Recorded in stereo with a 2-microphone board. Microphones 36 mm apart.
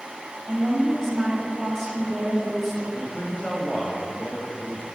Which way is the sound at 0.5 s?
5° left (ahead or behind).